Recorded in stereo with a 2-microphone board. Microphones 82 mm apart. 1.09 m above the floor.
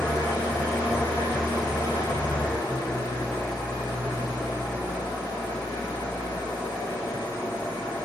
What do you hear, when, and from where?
0.0 s an engine running: 55° left (ahead or behind), 1.4 m